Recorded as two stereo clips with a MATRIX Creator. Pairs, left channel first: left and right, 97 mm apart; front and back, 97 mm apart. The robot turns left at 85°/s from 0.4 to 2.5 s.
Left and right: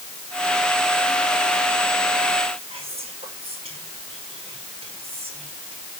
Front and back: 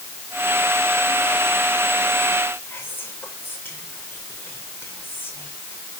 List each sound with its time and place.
2.7 s whispering: 70° right, 5 m